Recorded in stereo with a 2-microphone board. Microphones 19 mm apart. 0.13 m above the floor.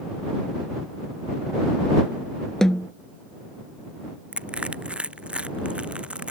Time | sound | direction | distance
2.6 | a snare drum | 25° left (ahead or behind) | ?
4.3 | crushing | 70° right (ahead or behind) | ?